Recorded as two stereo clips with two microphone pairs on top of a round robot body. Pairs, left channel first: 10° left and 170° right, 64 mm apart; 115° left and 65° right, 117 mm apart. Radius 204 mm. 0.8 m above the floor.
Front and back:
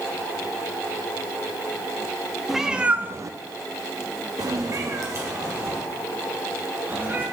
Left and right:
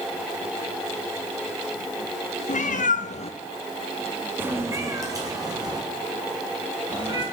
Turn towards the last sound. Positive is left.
turn(degrees=-120)